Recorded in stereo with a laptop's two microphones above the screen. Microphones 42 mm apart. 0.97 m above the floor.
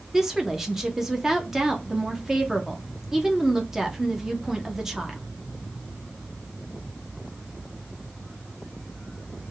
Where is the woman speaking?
15° right (ahead or behind), 0.7 m.